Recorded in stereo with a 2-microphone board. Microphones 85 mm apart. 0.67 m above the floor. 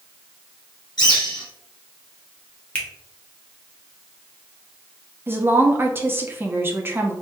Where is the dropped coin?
I don't hear a dropped coin.